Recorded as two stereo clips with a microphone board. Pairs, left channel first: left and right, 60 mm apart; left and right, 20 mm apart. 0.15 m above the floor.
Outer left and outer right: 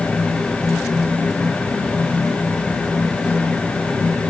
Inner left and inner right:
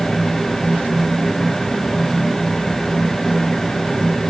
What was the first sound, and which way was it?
Only background noise.